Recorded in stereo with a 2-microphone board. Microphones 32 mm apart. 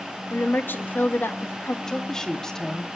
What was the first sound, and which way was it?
A woman speaking, 80° left.